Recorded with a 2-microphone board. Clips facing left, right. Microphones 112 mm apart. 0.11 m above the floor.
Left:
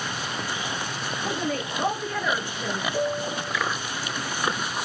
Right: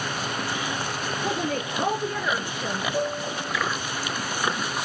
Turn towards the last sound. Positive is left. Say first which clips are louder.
# left 1 dB
turn(degrees=-5)  # may be behind; listen again after turning